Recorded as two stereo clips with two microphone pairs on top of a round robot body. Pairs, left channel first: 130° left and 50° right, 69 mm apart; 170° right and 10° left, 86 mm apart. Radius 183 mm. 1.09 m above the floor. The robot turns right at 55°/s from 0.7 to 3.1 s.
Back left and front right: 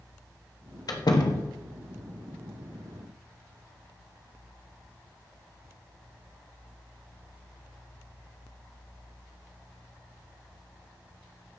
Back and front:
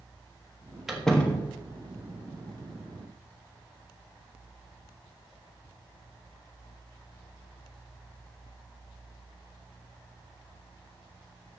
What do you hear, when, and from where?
0.9 s a door slam: 95° left, 1.4 m; by 1.6 s 130° left, 1.4 m